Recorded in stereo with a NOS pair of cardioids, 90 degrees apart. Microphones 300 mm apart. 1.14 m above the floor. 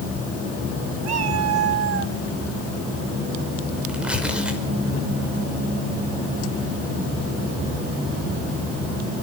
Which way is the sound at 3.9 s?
5° right.